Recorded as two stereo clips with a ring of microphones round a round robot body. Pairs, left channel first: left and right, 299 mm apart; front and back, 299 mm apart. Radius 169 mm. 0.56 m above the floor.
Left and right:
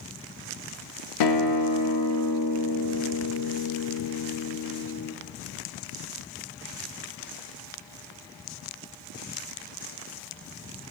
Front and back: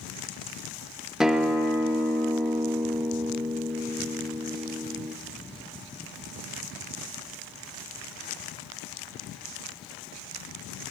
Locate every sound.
1.2 s a guitar: 90° left, 0.8 m